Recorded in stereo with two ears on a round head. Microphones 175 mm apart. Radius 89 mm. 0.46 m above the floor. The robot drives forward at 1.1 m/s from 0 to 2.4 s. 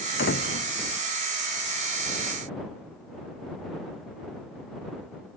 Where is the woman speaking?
No woman speaking in this recording.